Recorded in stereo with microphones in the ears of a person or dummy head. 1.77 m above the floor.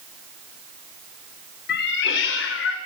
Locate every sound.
1.7 s a cat meowing: 60° left (ahead or behind), 3 m; by 2.8 s 70° left (ahead or behind), 3 m